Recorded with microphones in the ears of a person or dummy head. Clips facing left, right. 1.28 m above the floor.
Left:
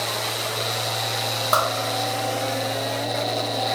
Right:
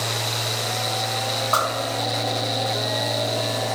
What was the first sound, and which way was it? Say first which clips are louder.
A whoosh: left 3 dB; 60° left (ahead or behind).